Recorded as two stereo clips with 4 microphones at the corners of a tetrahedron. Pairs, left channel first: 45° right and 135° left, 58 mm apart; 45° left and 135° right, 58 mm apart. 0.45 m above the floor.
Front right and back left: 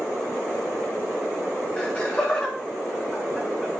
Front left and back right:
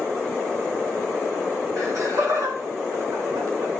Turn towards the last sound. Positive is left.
turn(degrees=-130)